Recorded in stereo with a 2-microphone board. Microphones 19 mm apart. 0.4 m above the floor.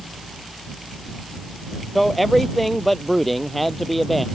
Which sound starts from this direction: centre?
A man speaking, at 1.9 s.